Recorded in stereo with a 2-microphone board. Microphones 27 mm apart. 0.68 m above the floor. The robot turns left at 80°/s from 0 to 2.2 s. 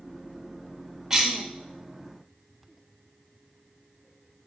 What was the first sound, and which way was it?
A cough, 15° right (ahead or behind).